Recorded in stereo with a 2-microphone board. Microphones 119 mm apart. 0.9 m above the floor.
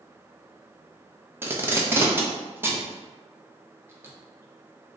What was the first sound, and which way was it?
Tape being pulled, 20° right (ahead or behind).